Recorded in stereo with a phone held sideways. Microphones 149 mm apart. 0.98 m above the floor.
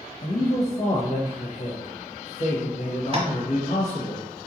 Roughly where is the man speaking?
Left.